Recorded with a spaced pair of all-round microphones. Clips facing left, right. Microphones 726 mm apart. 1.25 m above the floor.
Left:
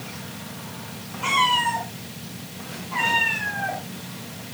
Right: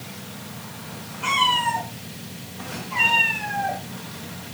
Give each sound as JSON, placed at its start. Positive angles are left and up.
{"t": 1.2, "sound": "a cat meowing", "side_deg": 45, "distance_m": 6.0}